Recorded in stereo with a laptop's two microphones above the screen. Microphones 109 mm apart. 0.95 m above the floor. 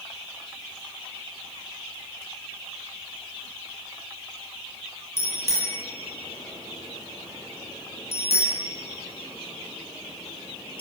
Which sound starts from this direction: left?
A bicycle bell, at 5.2 s.